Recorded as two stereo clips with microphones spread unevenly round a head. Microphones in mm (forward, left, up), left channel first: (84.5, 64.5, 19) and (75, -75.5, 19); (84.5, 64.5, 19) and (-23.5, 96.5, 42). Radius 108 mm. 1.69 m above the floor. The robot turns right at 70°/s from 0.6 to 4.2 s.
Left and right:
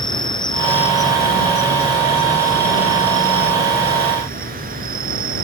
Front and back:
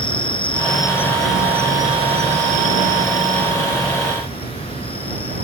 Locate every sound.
0.0 s an insect: 25° left; by 5.4 s 80° right